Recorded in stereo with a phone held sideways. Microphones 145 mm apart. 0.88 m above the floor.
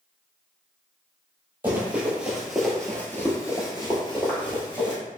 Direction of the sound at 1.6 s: 15° right (ahead or behind).